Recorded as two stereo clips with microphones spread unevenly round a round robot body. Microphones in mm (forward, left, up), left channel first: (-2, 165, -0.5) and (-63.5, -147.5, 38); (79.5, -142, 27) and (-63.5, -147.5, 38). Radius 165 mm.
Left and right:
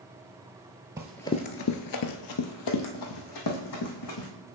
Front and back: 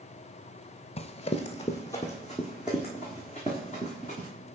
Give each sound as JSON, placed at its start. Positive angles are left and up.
{"t": 1.0, "sound": "running footsteps", "azimuth_deg": -30, "distance_m": 0.7}